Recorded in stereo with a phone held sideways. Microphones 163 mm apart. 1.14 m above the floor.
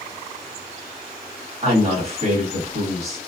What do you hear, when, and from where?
1.6 s a woman speaking: 40° right (ahead or behind), 1.9 m